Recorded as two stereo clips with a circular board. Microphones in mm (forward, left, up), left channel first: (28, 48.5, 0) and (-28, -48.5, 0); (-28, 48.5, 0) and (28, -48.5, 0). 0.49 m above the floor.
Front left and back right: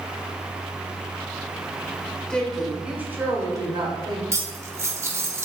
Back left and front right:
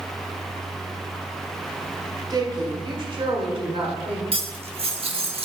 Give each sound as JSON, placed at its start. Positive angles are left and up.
{"t": 2.3, "sound": "a woman speaking", "azimuth_deg": -20, "distance_m": 1.8}
{"t": 4.3, "sound": "cutlery clinking", "azimuth_deg": -60, "distance_m": 0.8}